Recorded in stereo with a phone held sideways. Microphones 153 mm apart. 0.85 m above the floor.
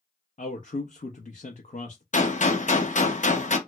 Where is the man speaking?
55° left (ahead or behind), 0.6 m.